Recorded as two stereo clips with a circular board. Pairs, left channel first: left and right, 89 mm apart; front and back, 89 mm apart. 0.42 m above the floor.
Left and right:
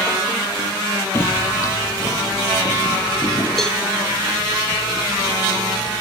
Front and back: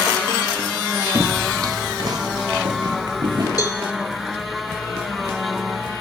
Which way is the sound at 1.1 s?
140° left.